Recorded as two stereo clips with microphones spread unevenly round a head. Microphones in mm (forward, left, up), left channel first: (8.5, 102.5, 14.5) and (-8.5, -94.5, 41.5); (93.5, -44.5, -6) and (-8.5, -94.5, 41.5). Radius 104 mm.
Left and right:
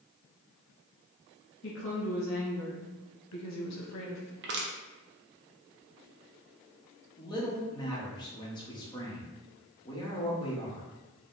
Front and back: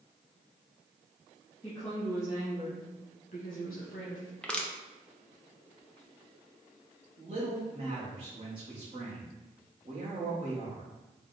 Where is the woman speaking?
120° left, 1.6 m; by 4.3 s 55° left, 0.7 m.